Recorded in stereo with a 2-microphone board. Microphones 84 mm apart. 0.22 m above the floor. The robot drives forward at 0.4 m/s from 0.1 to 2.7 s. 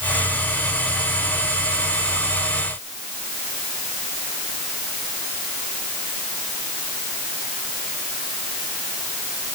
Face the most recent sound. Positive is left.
No sound to turn to.